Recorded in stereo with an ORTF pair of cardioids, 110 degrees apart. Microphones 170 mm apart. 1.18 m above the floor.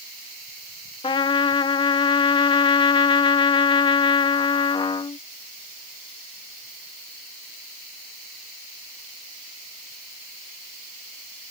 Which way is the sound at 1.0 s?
30° left.